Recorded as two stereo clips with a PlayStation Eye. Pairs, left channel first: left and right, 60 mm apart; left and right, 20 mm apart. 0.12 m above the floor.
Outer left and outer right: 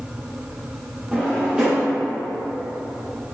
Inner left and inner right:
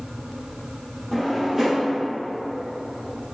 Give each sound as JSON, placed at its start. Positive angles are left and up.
{"t": 1.1, "sound": "a drawer", "side_deg": -15, "distance_m": 2.0}